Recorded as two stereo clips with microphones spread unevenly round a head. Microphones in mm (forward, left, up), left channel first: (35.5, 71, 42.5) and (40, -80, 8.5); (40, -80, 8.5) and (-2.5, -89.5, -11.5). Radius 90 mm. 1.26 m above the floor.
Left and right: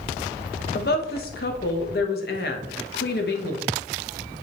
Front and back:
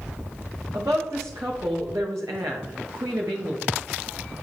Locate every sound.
0.7 s a woman speaking: 130° left, 1.1 m